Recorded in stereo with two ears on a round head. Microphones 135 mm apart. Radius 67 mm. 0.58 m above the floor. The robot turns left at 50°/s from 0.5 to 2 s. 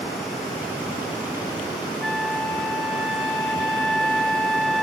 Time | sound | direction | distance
2.0 | a flute | centre (ahead or behind) | 1.4 m